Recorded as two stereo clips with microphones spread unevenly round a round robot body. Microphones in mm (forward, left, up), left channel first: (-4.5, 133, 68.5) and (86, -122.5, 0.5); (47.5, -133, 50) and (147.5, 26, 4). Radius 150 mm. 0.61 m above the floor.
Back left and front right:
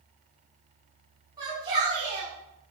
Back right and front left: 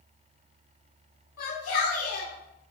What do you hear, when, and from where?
1.4 s a shout: 145° right, 4 m